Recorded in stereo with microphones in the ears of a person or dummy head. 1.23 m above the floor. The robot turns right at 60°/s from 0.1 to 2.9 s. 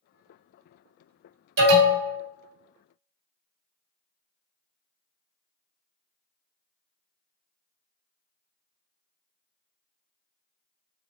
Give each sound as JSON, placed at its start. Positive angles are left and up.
{"t": 1.6, "sound": "an alarm", "azimuth_deg": -65, "distance_m": 1.7}